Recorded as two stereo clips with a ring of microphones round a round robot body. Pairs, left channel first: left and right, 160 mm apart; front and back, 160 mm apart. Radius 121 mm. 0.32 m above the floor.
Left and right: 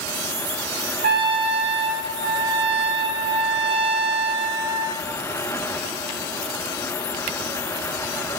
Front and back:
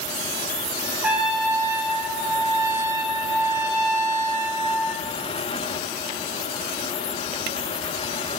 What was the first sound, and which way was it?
A trumpet, 100° right.